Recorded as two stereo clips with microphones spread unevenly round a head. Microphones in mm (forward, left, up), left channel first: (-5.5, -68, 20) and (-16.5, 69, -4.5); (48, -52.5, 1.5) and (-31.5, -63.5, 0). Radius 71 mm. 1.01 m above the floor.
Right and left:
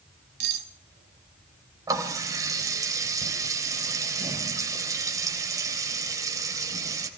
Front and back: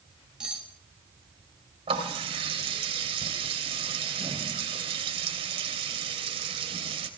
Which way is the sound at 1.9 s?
160° left.